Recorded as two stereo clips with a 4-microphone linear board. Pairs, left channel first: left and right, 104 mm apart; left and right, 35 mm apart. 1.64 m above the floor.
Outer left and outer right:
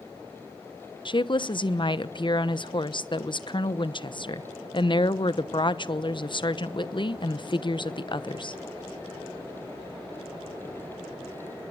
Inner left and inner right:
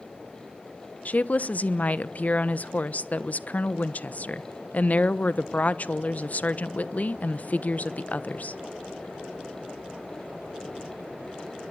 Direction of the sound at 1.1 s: 50° left (ahead or behind).